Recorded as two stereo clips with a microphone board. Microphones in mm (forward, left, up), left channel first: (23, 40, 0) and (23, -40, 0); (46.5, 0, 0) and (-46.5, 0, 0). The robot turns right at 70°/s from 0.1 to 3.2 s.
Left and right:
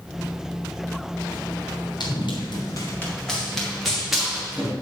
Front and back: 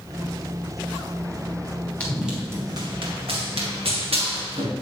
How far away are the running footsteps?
About 4.5 m.